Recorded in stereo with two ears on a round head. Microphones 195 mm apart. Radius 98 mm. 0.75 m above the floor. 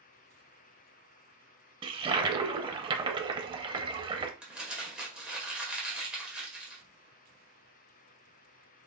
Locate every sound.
1.8 s a toilet flushing: 25° right (ahead or behind), 0.6 m
4.4 s crumpling: 5° right (ahead or behind), 1.5 m